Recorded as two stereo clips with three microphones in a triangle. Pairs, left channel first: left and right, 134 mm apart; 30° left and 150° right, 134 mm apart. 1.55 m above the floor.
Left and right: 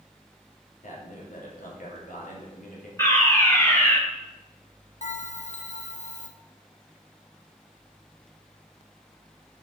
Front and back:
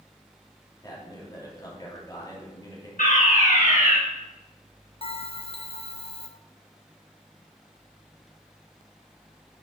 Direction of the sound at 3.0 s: 20° left.